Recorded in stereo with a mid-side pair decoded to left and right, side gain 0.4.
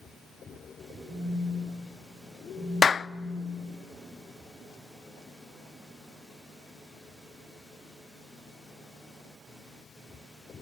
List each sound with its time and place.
1.1 s a phone buzzing: 40° right, 5 m
2.8 s a clap: 40° left, 0.5 m